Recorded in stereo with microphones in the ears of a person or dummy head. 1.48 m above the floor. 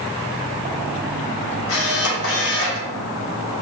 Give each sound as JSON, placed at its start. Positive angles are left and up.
{"t": 1.7, "sound": "a camera shutter", "side_deg": 75, "distance_m": 1.3}